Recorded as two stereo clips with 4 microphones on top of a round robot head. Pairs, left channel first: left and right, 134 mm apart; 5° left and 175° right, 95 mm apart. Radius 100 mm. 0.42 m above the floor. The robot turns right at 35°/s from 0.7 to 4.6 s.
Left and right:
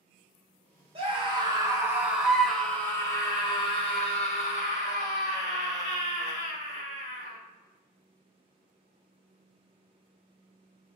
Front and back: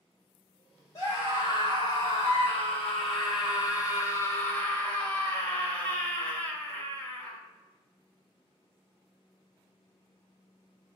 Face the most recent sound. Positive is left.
turn(degrees=75)